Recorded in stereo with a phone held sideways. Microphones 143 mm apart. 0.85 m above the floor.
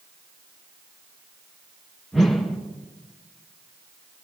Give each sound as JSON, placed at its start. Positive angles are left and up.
{"t": 2.1, "sound": "a whoosh", "side_deg": 5, "distance_m": 4.0}